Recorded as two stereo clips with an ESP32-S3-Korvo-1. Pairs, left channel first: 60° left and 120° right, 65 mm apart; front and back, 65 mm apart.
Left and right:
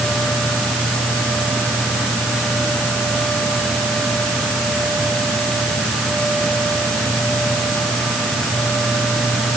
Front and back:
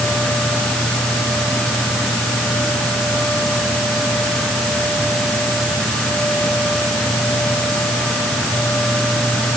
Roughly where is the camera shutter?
No camera shutter in this recording.